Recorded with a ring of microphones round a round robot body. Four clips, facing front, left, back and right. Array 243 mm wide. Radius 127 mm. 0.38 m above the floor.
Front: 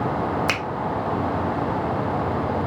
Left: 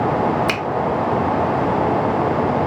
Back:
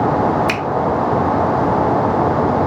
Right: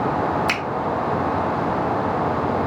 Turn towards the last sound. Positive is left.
turn(degrees=35)